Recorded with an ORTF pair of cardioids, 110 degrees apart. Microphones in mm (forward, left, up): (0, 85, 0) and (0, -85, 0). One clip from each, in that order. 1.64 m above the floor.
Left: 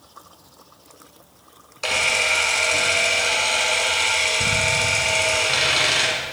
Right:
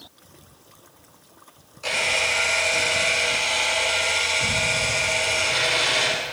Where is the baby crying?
No baby crying in this recording.